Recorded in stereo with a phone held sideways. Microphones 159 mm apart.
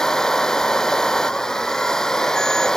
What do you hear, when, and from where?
0.0 s a machine running: 5° left (ahead or behind)